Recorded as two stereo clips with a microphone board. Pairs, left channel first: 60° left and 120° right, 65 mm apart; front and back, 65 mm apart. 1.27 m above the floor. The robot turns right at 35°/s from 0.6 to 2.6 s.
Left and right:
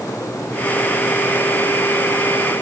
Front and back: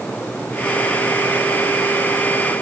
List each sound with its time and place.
Only background noise.